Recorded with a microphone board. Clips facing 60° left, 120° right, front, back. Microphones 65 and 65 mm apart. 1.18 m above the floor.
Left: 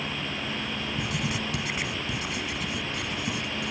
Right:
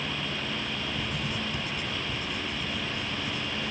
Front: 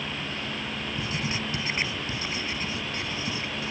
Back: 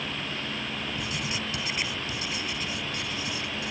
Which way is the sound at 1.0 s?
60° left.